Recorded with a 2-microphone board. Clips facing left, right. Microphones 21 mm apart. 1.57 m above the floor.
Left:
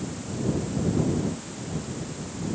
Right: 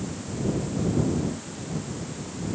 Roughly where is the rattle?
I don't hear a rattle.